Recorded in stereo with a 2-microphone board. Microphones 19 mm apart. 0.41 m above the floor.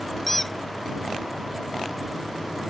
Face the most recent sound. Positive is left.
turn(degrees=5)  # may be behind; listen again after turning